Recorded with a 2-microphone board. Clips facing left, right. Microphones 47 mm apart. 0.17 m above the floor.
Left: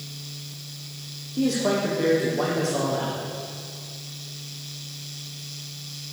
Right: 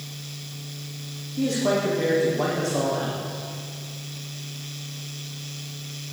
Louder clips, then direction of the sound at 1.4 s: Even; 80° left.